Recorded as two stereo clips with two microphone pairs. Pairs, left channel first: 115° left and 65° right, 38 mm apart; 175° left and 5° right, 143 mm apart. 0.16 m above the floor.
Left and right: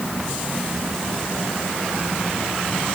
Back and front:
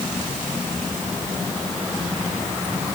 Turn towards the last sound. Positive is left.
No sound to turn to.